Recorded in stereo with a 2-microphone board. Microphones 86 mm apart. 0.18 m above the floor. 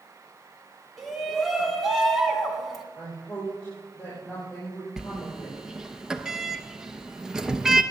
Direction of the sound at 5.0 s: 5° right (ahead or behind).